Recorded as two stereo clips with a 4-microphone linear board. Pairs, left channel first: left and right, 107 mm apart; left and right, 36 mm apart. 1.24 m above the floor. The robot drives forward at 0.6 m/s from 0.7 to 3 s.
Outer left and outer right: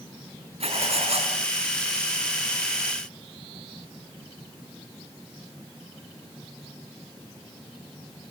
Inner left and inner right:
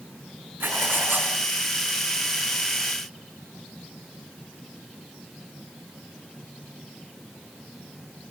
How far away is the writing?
About 5 m.